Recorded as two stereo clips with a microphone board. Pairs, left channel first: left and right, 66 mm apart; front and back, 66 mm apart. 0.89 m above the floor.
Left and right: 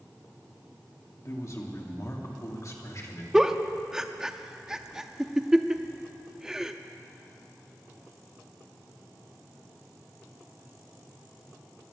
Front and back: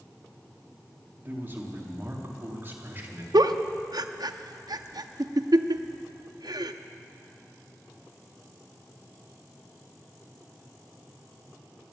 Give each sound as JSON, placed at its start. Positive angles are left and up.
{"t": 1.2, "sound": "a man speaking", "azimuth_deg": 125, "distance_m": 2.0}
{"t": 3.3, "sound": "a giggle", "azimuth_deg": -170, "distance_m": 0.5}